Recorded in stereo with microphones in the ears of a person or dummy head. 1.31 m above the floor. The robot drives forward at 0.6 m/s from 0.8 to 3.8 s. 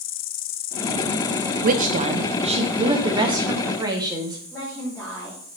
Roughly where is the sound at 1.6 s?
Right.